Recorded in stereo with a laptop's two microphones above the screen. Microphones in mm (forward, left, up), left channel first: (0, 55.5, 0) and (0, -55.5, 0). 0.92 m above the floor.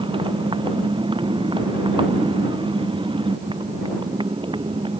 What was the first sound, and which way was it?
A motorcycle, 50° right (ahead or behind).